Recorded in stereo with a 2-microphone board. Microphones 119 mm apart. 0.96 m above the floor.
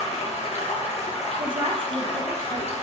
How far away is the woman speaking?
About 0.8 m.